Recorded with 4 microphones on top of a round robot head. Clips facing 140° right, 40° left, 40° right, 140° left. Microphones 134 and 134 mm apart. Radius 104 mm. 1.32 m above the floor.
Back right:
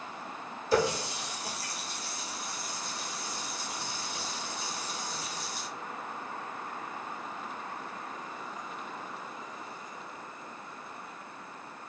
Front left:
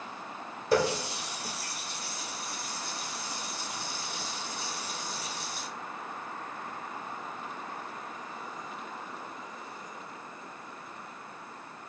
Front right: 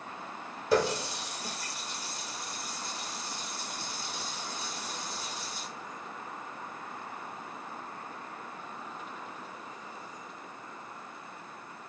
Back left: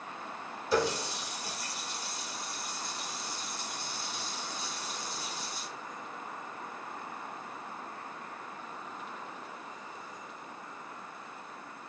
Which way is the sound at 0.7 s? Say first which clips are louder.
Front left 1 dB, front right 2 dB; straight ahead.